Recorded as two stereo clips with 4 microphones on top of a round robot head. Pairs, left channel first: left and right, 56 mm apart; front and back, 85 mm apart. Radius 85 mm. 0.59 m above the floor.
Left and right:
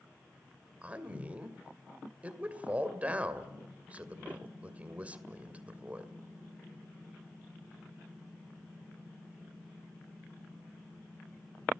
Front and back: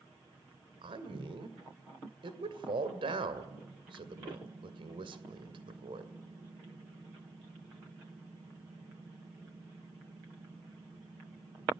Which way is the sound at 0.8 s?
155° right.